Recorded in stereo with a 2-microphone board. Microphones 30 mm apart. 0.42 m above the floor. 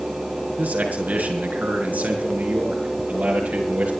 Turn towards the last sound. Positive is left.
turn(degrees=-85)